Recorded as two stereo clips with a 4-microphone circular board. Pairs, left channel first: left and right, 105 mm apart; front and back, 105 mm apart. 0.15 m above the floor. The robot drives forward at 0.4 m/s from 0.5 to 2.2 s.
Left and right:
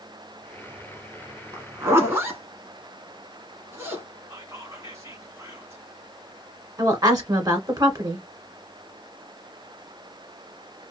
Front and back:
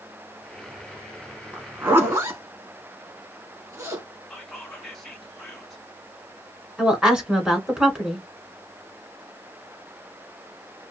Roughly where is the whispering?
Right.